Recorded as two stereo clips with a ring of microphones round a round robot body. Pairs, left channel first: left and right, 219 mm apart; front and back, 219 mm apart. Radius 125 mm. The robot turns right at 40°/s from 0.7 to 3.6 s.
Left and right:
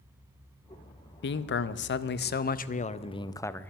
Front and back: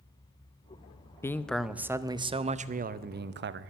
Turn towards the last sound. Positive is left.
turn(degrees=170)